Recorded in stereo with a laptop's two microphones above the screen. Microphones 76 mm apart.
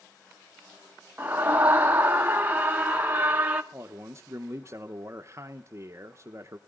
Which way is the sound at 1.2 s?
20° right (ahead or behind).